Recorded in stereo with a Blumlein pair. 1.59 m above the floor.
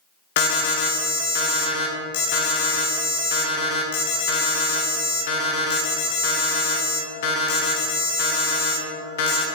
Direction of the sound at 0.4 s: 55° left.